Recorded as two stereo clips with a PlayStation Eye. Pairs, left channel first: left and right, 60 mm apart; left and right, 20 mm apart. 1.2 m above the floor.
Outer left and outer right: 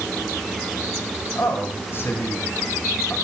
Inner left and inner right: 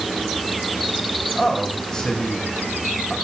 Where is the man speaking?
40° left (ahead or behind), 7.5 m.